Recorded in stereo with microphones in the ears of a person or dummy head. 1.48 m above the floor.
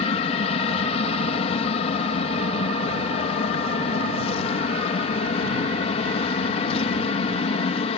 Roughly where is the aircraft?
Left.